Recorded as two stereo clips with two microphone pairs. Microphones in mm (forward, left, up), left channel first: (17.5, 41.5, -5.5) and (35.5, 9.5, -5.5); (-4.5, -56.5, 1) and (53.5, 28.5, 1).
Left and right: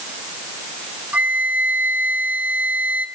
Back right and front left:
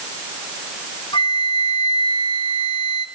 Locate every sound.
1.1 s a flute: 90° right, 0.9 m